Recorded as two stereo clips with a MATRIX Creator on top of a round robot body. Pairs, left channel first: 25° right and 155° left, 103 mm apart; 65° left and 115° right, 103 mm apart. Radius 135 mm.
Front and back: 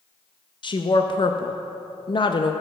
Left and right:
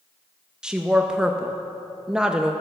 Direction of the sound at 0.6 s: 30° right.